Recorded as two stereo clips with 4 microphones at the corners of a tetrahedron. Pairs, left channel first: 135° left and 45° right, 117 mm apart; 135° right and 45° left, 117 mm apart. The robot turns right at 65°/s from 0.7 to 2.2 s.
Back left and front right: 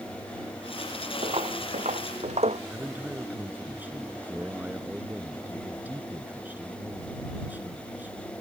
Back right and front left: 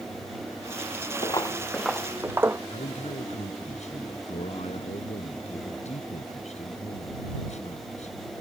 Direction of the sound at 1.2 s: 85° right.